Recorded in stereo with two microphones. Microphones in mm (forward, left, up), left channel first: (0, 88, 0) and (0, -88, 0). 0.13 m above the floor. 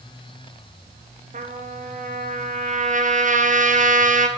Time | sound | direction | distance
1.3 | a trumpet | 50° right (ahead or behind) | 1.7 m